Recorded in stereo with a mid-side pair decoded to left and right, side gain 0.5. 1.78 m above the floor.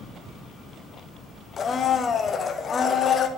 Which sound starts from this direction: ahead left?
A blender, at 1.6 s.